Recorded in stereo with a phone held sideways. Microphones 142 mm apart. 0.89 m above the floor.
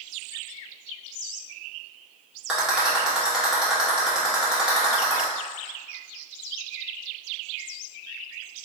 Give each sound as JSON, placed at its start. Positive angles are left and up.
{"t": 2.5, "sound": "a rattle", "side_deg": -5, "distance_m": 1.1}